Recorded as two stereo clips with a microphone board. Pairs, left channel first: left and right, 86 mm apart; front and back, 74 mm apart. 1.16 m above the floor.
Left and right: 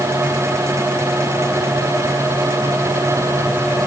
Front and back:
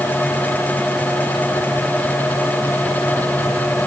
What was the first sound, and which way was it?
Only background noise.